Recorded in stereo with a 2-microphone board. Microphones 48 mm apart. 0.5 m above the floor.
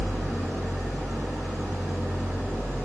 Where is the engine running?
60° right (ahead or behind), 6 m.